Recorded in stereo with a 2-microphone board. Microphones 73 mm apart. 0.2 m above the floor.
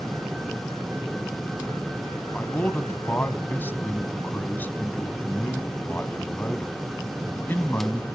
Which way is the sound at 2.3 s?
30° left (ahead or behind).